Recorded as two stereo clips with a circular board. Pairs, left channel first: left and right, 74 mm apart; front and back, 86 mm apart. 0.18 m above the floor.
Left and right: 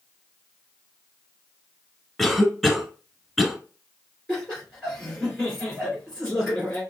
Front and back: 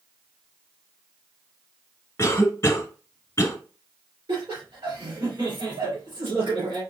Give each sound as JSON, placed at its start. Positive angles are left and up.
{"t": 2.2, "sound": "a cough", "azimuth_deg": 0, "distance_m": 1.1}
{"t": 4.3, "sound": "laughter", "azimuth_deg": 170, "distance_m": 2.5}